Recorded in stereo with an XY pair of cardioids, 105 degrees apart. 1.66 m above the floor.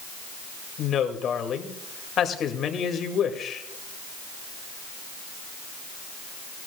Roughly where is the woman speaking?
Ahead left.